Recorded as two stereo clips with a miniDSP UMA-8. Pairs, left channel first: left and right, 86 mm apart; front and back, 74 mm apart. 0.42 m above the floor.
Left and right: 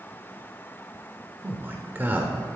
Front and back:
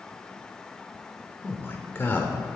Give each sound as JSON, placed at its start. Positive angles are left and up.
{"t": 1.4, "sound": "a man speaking", "azimuth_deg": -40, "distance_m": 0.9}